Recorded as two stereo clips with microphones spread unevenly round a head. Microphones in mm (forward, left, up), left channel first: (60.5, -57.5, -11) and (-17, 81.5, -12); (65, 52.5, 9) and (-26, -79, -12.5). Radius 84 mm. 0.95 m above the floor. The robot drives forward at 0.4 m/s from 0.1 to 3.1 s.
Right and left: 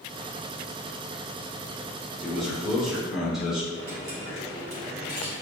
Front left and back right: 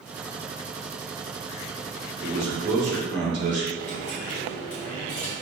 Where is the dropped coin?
135° left, 3 m.